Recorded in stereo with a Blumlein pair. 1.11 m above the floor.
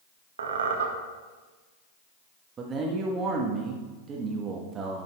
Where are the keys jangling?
No keys jangling in this recording.